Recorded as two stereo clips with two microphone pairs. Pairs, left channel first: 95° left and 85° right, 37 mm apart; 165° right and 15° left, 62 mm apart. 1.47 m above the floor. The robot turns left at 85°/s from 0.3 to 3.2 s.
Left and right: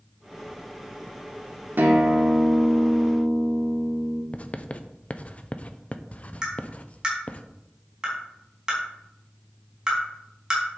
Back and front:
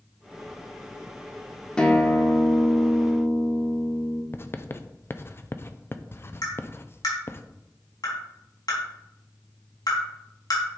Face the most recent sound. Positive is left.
turn(degrees=-160)